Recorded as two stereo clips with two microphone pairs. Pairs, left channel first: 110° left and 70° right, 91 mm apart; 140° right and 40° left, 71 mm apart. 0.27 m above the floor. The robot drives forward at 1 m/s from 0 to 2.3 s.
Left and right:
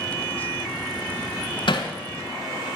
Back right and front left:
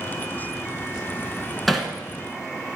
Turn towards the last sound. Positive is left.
turn(degrees=145)